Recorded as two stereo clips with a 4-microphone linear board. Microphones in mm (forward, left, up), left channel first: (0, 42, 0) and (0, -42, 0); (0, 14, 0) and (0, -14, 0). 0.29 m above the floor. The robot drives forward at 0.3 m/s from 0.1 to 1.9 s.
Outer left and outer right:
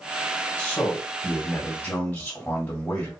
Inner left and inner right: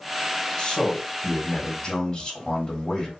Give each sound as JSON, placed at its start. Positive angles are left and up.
{"t": 0.6, "sound": "a man speaking", "side_deg": 25, "distance_m": 1.5}